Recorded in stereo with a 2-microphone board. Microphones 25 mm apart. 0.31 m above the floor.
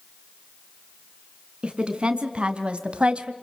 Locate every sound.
1.6 s a woman speaking: 45° right (ahead or behind), 3 m; by 3.3 s 50° right (ahead or behind), 1.6 m